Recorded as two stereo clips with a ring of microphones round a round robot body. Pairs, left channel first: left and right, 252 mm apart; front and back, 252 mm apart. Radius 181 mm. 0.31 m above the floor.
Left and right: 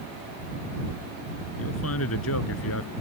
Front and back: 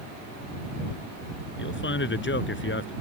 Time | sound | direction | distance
1.6 | a man speaking | 40° left | ?